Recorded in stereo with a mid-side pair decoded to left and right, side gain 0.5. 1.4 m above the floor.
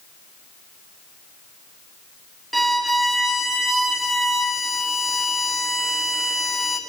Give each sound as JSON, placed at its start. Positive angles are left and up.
{"t": 2.5, "sound": "a violin", "azimuth_deg": 0, "distance_m": 1.1}